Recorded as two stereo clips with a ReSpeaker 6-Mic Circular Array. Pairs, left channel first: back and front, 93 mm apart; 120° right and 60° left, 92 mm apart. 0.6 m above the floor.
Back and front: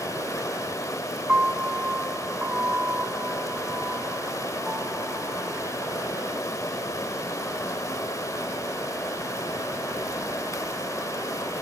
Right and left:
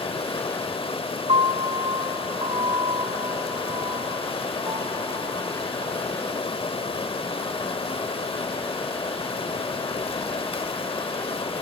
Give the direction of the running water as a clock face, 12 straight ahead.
4 o'clock.